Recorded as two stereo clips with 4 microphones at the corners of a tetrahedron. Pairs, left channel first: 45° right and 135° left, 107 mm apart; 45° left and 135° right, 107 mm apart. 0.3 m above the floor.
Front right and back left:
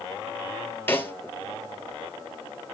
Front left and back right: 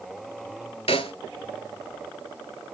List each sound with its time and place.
0.9 s a snare drum: 25° left, 1.6 m